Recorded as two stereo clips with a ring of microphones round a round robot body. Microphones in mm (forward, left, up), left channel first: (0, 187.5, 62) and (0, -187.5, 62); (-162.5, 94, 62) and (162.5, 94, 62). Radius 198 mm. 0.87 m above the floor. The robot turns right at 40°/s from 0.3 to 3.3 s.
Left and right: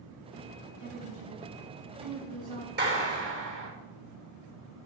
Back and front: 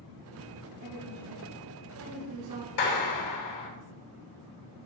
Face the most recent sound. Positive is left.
turn(degrees=-135)